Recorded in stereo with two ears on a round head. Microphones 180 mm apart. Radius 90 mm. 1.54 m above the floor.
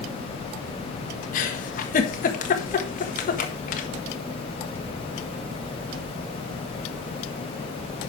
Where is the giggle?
40° left (ahead or behind), 1.5 m.